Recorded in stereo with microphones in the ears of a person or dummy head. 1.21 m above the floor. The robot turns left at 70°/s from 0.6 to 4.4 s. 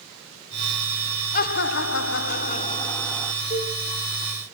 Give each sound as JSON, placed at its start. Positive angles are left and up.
{"t": 1.3, "sound": "laughter", "azimuth_deg": 130, "distance_m": 0.7}
{"t": 3.5, "sound": "a cowbell", "side_deg": 45, "distance_m": 6.0}